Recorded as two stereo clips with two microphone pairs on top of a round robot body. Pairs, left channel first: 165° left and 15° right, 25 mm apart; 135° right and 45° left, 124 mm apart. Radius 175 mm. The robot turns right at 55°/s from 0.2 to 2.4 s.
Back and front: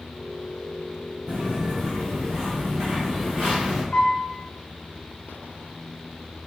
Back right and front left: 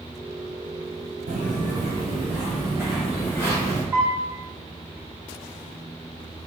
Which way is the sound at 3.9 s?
130° left.